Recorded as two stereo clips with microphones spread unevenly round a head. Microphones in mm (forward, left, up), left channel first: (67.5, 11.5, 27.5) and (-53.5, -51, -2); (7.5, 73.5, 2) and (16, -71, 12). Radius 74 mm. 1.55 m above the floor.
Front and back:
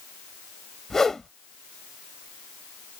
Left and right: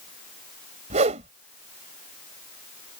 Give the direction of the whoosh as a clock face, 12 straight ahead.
2 o'clock.